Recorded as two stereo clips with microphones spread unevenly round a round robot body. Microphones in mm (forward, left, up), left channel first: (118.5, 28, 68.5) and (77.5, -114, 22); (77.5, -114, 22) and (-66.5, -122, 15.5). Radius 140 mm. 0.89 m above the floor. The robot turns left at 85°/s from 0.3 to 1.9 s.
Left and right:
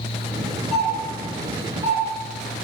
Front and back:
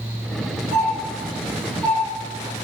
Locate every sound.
0.7 s a doorbell: 25° left, 1.7 m; by 2.6 s 75° right, 1.7 m